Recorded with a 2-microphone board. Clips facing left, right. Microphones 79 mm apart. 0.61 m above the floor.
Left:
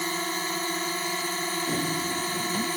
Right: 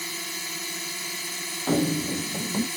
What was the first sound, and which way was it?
A drone, 45° left (ahead or behind).